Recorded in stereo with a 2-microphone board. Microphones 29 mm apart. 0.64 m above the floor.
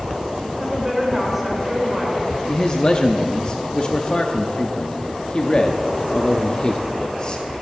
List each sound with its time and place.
0.4 s a woman speaking: 5° right (ahead or behind), 2.5 m
2.5 s a man speaking: 35° left (ahead or behind), 0.6 m